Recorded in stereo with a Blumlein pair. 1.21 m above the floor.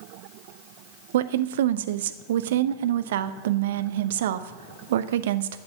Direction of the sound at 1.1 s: 55° right.